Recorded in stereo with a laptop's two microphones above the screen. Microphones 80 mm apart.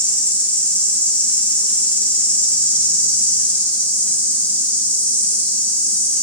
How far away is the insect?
About 5 m.